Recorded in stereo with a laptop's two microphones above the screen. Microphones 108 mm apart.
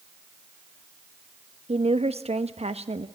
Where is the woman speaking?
75° right (ahead or behind), 1.0 m.